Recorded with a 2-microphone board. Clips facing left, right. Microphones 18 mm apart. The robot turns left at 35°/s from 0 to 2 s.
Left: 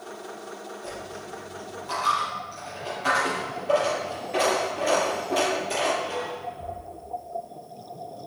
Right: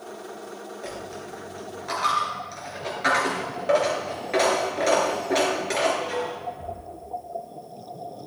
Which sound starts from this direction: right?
A dropped coin, at 0.8 s.